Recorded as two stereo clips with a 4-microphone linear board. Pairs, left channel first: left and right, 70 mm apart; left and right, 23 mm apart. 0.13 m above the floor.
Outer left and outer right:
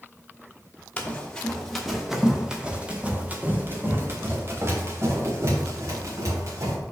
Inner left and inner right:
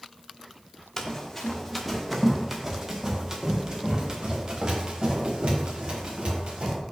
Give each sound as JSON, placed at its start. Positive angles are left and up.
{"t": 1.0, "sound": "running footsteps", "side_deg": 20, "distance_m": 1.6}